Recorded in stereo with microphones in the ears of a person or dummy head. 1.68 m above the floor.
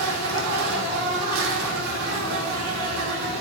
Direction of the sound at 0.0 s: 80° right.